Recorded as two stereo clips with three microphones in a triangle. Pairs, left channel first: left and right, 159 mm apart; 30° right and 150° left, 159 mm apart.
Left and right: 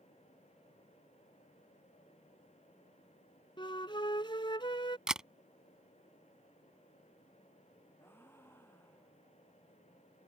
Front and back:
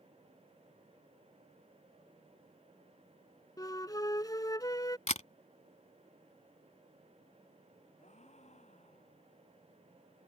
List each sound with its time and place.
3.6 s a flute: 35° left
5.1 s a camera shutter: 5° right
8.0 s a gasp: 15° left